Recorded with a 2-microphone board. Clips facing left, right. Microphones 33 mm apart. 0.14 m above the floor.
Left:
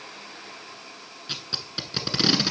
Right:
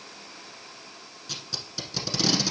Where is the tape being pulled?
35° left (ahead or behind), 0.9 m.